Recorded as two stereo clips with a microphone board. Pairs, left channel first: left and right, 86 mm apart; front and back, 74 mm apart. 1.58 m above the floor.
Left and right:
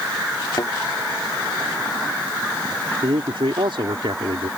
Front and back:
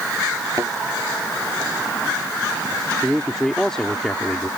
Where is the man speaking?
80° right.